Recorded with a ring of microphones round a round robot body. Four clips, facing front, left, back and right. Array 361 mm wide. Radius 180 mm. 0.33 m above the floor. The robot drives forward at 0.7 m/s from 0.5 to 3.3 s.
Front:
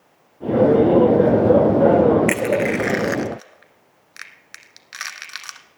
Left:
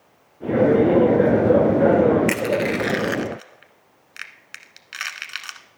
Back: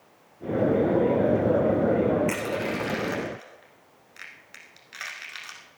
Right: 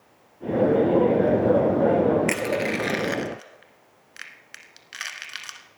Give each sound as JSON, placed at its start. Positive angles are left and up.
{"t": 2.3, "sound": "crushing", "azimuth_deg": 10, "distance_m": 1.6}